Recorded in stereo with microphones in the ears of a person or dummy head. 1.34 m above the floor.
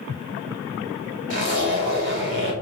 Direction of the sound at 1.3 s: 40° right (ahead or behind).